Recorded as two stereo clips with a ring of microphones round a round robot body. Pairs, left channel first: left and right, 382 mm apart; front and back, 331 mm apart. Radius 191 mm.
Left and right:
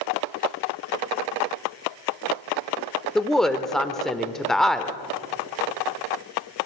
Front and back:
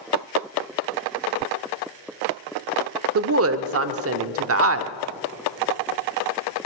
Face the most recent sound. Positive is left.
turn(degrees=180)